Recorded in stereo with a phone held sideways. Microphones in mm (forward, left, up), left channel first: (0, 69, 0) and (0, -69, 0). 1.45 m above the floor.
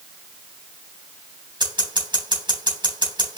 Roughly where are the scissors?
Right.